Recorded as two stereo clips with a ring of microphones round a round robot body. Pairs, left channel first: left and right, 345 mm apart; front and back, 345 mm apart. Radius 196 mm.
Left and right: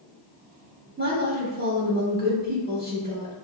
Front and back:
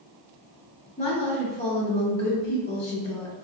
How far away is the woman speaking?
About 0.9 m.